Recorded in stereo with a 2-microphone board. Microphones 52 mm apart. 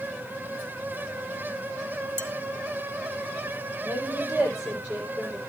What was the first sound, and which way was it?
Dishes clattering, 50° right (ahead or behind).